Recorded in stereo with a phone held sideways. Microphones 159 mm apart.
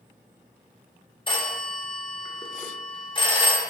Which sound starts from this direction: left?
A phone ringing, at 1.3 s.